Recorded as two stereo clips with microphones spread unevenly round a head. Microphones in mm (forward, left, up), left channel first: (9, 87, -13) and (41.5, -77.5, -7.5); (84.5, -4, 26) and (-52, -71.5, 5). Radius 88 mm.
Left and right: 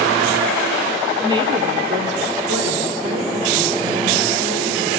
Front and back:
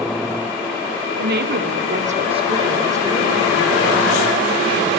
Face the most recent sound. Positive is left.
turn(degrees=-60)